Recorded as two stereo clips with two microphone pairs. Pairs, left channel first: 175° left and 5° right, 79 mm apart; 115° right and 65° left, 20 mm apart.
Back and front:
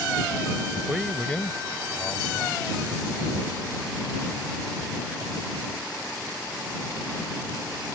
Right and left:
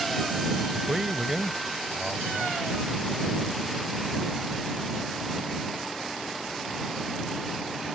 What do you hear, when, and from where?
0.7 s a man speaking: 45° left; by 2.7 s 155° left